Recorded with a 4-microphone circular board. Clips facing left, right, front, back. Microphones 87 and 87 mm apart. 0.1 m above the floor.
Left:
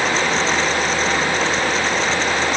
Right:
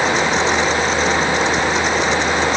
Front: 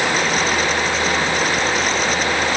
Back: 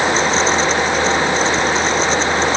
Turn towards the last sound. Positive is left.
No sound to turn to.